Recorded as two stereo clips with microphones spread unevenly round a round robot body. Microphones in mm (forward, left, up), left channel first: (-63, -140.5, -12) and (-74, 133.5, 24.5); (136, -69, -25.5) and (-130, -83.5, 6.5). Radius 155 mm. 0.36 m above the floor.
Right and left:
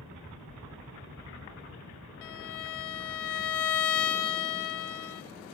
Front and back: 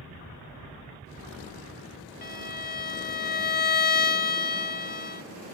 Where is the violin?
55° right, 0.8 m.